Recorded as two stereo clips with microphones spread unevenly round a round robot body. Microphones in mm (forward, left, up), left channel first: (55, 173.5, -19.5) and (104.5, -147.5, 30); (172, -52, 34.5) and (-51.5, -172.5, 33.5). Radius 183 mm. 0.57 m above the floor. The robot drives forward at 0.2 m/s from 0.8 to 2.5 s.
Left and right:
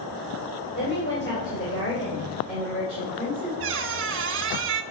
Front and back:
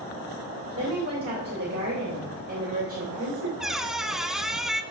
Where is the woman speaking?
160° left, 2.5 m.